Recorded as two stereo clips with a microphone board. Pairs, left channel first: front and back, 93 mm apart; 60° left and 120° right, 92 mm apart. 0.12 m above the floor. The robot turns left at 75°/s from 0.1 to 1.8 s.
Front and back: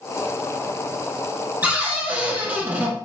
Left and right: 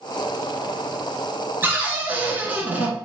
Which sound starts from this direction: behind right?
A cupboard door, at 1.6 s.